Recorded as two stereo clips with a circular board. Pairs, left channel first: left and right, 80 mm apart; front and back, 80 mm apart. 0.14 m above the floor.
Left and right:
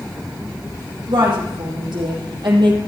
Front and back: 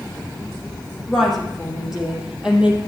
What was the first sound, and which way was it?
A woman speaking, 90° right.